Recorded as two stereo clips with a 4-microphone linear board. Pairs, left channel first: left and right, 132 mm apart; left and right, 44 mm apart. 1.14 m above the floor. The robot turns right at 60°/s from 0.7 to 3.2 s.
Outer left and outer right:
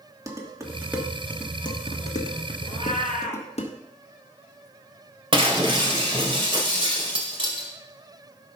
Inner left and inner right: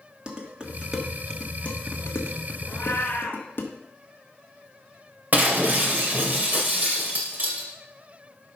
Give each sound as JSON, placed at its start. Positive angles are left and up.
{"t": 0.3, "sound": "dishes clattering", "side_deg": -25, "distance_m": 1.4}
{"t": 2.6, "sound": "a cat meowing", "azimuth_deg": 60, "distance_m": 3.0}
{"t": 5.3, "sound": "breaking glass", "side_deg": -40, "distance_m": 2.0}